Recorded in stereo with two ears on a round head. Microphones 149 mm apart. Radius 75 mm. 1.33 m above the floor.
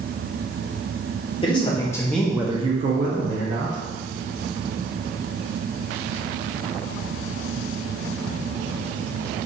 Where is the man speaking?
30° left (ahead or behind), 1.1 m; by 3.8 s 70° right (ahead or behind), 1.1 m.